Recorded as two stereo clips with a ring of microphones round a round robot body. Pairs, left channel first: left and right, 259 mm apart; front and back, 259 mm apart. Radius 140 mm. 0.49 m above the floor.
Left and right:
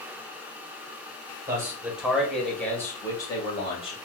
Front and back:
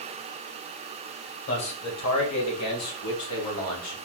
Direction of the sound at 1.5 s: 15° right.